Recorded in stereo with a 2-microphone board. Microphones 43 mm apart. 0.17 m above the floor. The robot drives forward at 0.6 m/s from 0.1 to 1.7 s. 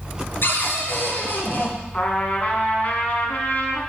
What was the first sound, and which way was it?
A cupboard door, 60° left (ahead or behind).